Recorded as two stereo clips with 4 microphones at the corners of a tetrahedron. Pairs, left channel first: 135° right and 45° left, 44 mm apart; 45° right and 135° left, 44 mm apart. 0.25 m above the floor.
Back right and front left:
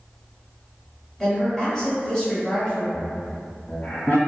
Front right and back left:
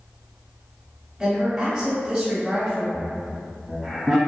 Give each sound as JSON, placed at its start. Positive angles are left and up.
{"t": 1.2, "sound": "a woman speaking", "azimuth_deg": 180, "distance_m": 1.0}
{"t": 2.9, "sound": "laughter", "azimuth_deg": -145, "distance_m": 1.2}